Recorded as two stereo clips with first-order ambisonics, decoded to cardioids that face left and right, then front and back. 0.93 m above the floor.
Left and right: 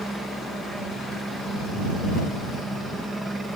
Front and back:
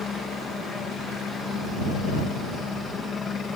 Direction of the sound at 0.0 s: 20° right.